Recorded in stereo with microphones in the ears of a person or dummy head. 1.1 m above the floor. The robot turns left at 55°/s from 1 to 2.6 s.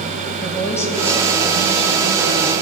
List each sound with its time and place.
0.4 s a woman speaking: 15° left, 1.8 m; by 2.5 s 70° right, 1.8 m